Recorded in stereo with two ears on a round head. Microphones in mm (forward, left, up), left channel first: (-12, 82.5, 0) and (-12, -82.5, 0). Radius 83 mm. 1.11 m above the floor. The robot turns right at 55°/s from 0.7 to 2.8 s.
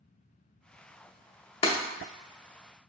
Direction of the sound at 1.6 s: 30° left (ahead or behind).